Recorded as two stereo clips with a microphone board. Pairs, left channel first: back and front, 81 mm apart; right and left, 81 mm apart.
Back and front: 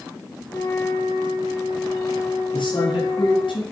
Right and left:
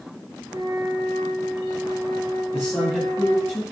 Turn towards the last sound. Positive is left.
turn(degrees=-160)